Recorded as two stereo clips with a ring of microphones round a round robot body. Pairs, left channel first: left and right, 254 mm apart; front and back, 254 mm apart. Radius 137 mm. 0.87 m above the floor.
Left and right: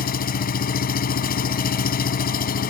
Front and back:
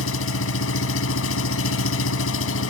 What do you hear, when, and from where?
0.0 s an engine running: 35° left